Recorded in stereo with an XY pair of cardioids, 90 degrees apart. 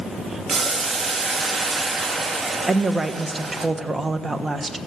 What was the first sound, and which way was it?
Boiling, 40° right.